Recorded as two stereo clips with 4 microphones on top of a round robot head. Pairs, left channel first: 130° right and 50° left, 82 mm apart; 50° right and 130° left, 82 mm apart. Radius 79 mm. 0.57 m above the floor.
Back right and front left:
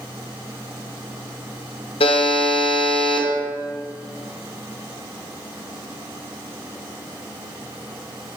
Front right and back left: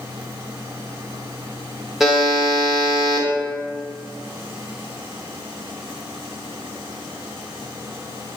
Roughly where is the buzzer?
Behind right.